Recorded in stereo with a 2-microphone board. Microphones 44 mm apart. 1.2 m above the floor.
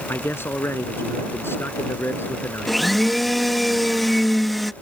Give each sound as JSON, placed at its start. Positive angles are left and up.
{"t": 0.1, "sound": "a man speaking", "side_deg": 65}
{"t": 2.7, "sound": "a blender", "side_deg": 5}